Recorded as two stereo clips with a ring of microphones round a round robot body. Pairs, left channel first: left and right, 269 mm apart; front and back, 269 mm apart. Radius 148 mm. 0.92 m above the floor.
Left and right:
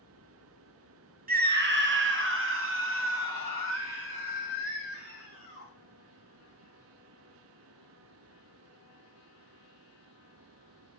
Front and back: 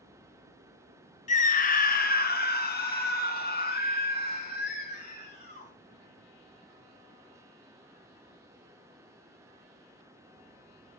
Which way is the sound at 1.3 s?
50° right.